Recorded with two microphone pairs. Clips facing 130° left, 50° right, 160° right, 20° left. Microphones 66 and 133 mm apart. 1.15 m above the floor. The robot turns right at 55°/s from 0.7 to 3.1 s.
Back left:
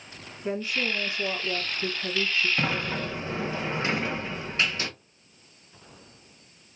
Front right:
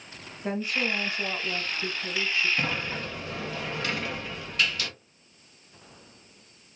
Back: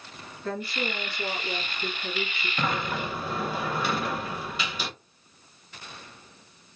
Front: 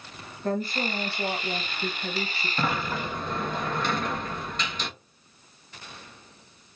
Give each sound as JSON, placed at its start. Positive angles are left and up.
{"t": 0.4, "sound": "a woman speaking", "azimuth_deg": -20, "distance_m": 1.3}
{"t": 2.6, "sound": "a sliding door", "azimuth_deg": 95, "distance_m": 0.5}